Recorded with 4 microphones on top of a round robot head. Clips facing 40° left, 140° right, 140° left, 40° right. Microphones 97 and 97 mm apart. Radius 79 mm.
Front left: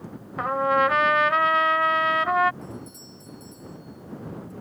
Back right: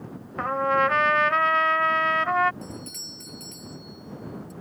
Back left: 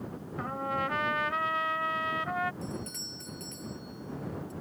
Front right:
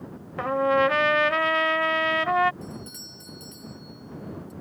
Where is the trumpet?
45° right.